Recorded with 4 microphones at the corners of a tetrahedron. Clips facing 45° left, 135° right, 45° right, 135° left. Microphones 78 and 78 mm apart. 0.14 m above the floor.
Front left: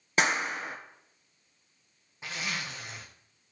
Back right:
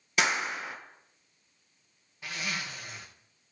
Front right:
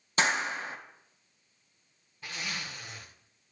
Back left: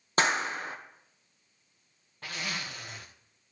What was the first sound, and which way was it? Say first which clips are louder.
A clap: front left 1 dB, back left 1 dB; 95° left.